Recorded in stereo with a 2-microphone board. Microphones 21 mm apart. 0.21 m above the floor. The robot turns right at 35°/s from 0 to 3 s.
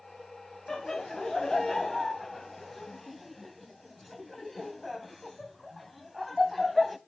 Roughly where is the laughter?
Left.